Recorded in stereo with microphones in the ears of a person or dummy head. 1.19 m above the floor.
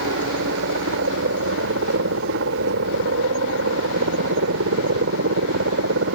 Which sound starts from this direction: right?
A helicopter, at 0.0 s.